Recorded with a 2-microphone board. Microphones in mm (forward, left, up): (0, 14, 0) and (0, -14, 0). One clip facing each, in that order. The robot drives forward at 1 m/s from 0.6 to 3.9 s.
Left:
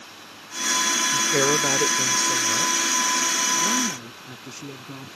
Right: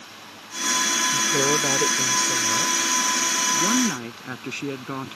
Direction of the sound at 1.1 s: 20° left (ahead or behind).